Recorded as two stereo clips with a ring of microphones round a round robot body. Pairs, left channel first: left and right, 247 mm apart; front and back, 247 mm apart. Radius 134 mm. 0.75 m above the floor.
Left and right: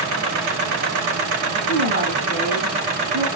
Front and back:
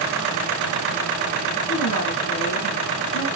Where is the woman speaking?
40° right, 6 m.